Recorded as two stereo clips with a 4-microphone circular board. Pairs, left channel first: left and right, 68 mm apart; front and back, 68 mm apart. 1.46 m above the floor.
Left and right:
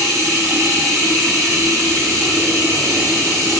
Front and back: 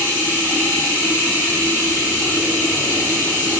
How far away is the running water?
About 1.9 m.